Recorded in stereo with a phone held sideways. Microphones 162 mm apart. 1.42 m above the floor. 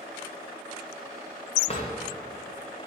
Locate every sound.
1.7 s a drawer: 40° left (ahead or behind), 1.4 m